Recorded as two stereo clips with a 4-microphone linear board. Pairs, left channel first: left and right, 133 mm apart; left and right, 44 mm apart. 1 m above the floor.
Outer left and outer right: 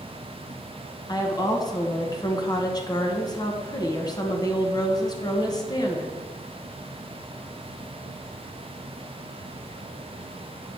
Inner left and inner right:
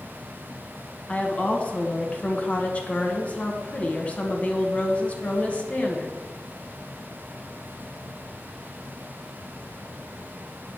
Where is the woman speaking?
30° left (ahead or behind), 0.9 m.